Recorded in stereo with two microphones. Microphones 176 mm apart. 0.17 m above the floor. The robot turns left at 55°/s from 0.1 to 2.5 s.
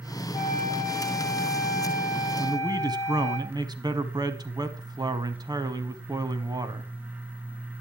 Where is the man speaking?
25° right (ahead or behind), 1.2 m.